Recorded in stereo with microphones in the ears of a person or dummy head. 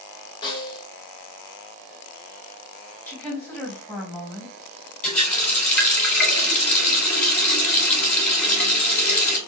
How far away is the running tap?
About 3 m.